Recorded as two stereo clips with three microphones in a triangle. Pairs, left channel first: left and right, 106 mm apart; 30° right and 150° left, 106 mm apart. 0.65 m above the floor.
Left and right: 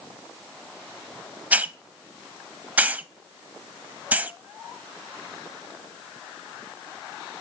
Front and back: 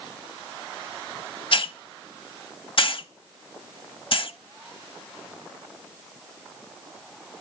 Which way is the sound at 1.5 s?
15° right.